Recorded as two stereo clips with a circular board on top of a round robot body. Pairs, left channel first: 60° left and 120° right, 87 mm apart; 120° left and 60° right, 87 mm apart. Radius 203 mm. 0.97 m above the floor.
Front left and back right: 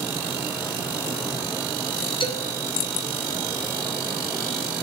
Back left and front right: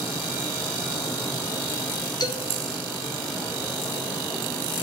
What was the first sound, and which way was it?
A man speaking, 80° left.